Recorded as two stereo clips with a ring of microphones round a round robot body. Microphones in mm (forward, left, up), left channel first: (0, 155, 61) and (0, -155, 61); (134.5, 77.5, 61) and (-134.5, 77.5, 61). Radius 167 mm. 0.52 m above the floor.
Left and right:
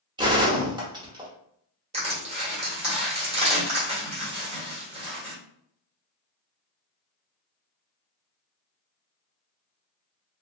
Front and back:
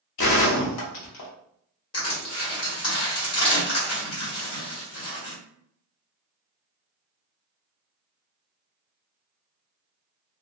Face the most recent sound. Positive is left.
turn(degrees=-20)